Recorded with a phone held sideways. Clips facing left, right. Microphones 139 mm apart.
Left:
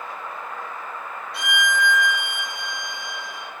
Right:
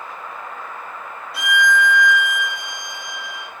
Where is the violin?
Centre (ahead or behind), 0.7 m.